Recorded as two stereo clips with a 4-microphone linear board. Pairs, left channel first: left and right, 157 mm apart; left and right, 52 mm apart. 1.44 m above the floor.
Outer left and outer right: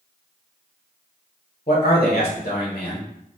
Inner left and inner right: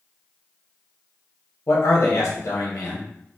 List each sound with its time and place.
1.7 s a man speaking: 50° left (ahead or behind), 1.1 m